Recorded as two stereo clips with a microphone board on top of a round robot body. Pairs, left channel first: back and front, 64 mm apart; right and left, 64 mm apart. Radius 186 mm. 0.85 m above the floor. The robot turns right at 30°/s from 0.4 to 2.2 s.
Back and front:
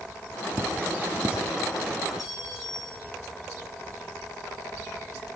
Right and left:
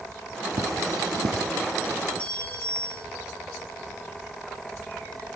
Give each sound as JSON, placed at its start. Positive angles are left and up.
{"t": 0.6, "sound": "cutlery clinking", "azimuth_deg": 50, "distance_m": 0.9}
{"t": 2.2, "sound": "a clink", "azimuth_deg": -160, "distance_m": 4.5}